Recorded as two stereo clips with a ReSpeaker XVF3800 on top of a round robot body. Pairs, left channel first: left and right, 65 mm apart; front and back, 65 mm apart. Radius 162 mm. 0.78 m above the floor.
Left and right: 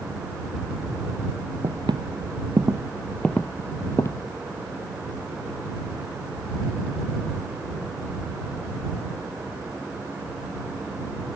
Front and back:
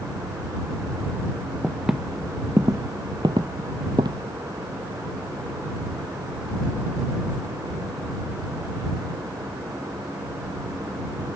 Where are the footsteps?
95° right; by 4.2 s 145° left.